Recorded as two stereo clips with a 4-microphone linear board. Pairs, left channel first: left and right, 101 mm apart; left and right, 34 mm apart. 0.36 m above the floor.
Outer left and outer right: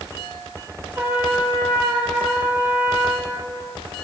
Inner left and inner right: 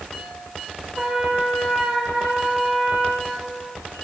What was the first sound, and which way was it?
A trumpet, 15° right (ahead or behind).